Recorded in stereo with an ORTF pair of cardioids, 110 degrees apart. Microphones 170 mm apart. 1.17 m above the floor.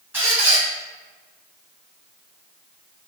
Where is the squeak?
10° right, 1.2 m.